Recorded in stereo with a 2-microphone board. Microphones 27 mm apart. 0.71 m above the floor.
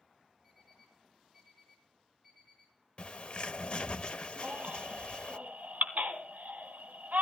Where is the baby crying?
75° right (ahead or behind), 1.5 m.